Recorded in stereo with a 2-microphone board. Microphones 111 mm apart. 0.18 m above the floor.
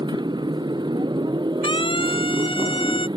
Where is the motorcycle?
40° right (ahead or behind).